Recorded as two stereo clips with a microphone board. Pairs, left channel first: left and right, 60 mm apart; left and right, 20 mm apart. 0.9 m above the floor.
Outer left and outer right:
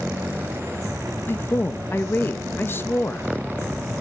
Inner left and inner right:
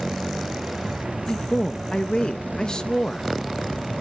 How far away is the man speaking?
About 0.6 m.